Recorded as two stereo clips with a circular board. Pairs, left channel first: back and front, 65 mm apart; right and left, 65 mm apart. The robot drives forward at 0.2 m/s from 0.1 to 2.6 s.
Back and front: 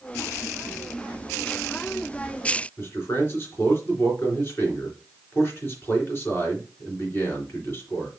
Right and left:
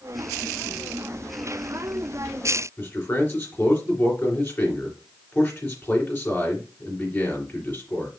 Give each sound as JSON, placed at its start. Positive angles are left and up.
{"t": 2.8, "sound": "a man speaking", "azimuth_deg": -135, "distance_m": 3.0}